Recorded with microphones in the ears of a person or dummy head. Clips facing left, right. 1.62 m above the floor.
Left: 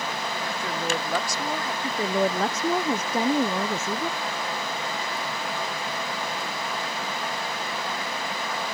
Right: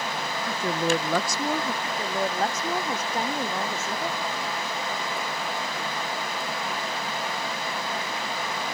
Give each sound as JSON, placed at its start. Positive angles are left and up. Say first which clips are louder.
{"t": 0.5, "sound": "a woman speaking", "louder": "right 6 dB", "side_deg": -75}
{"t": 1.8, "sound": "a woman speaking", "louder": "left 4 dB", "side_deg": 70}